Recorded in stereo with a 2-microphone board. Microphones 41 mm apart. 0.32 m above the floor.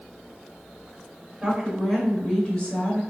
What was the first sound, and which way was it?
A woman speaking, centre (ahead or behind).